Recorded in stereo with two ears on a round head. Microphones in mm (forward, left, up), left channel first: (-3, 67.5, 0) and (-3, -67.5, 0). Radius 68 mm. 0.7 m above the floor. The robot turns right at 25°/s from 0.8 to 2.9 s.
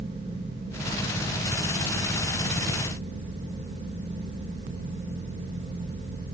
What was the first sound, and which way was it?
Only background noise.